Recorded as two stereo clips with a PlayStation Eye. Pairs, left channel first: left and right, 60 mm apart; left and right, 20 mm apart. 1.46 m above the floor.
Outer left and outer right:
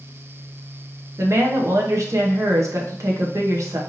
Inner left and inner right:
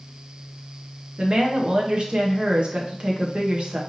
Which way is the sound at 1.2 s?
55° right (ahead or behind).